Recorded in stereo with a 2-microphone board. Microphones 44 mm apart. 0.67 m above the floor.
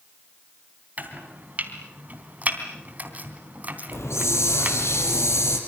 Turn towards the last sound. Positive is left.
turn(degrees=85)